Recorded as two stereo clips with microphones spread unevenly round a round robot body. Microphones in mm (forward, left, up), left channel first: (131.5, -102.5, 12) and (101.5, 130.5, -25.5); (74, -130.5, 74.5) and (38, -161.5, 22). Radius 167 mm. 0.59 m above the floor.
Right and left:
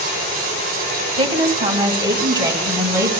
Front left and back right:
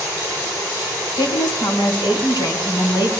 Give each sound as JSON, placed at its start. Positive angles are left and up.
{"t": 1.2, "sound": "a woman speaking", "azimuth_deg": 35, "distance_m": 4.0}